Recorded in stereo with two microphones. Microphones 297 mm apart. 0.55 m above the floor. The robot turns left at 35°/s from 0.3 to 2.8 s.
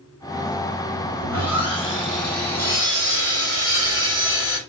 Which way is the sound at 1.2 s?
70° right.